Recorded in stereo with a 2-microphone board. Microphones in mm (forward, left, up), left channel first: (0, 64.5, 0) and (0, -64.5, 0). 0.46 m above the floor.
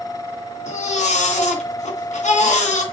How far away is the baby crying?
About 2.5 m.